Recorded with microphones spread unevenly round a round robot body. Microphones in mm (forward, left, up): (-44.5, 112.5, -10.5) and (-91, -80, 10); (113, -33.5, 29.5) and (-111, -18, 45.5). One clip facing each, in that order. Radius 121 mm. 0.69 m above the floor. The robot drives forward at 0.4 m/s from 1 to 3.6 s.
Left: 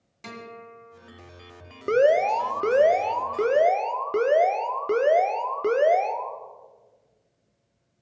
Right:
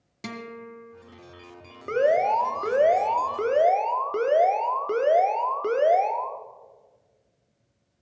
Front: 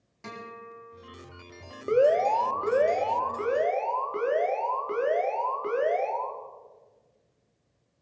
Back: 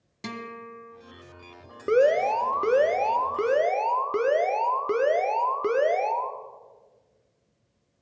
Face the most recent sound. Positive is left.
turn(degrees=145)